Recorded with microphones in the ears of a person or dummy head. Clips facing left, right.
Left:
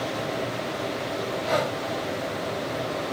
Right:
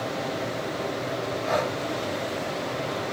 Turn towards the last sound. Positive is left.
turn(degrees=15)  # may be behind; listen again after turning